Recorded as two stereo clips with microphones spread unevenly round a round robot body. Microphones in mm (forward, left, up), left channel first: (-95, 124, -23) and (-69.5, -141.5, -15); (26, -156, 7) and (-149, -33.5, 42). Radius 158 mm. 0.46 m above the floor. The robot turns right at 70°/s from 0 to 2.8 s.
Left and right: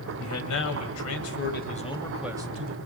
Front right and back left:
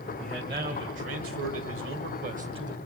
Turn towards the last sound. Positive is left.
turn(degrees=-130)